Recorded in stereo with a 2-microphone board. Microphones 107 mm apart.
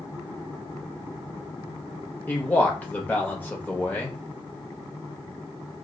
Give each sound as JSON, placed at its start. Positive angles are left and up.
{"t": 2.3, "sound": "a man speaking", "side_deg": 15, "distance_m": 1.1}